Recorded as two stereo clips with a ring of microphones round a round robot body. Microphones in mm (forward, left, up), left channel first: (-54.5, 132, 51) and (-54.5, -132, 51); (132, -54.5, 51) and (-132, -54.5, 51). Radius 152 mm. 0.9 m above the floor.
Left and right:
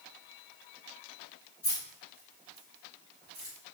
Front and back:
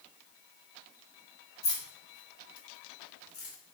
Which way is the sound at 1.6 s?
10° left.